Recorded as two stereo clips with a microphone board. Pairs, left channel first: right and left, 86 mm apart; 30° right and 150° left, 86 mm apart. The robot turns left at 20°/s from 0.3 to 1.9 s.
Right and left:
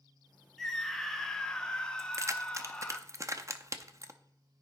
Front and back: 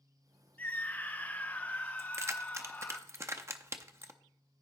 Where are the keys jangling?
115° left, 0.6 m.